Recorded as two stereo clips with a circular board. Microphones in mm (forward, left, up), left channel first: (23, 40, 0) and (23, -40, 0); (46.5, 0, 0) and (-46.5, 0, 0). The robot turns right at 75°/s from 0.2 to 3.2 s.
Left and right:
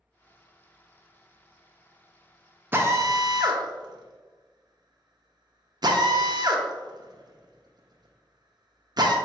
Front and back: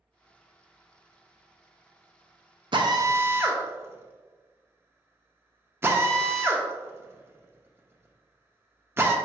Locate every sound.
2.7 s a drill: 150° right, 0.6 m; by 9.2 s 115° right, 0.6 m